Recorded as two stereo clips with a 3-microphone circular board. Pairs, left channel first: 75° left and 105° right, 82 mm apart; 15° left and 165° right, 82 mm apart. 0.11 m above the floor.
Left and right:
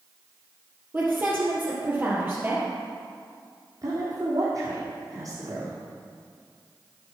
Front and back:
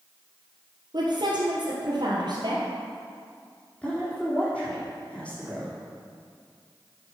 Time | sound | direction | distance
0.9 | a woman speaking | 170° right | 2.5 m
3.8 | a woman speaking | 65° right | 3.5 m